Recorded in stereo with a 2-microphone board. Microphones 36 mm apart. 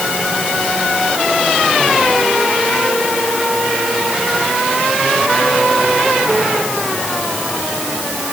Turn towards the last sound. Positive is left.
No sound to turn to.